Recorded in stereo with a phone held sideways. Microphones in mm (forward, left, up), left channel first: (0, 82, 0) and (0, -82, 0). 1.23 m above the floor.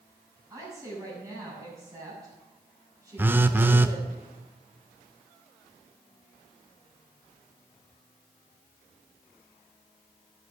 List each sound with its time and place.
0.5 s a woman speaking: 20° right (ahead or behind), 8.5 m
3.2 s a phone buzzing: 15° right (ahead or behind), 0.6 m